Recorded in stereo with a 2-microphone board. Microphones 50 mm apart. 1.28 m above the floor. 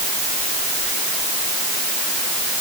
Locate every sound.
Only background noise.